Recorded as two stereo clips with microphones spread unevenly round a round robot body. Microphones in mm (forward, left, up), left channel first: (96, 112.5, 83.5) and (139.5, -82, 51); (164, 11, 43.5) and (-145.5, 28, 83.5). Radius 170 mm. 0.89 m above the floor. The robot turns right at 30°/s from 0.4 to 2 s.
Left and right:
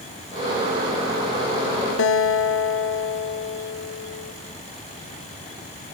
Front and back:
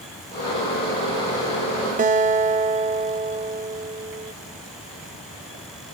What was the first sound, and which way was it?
A guitar, 115° left.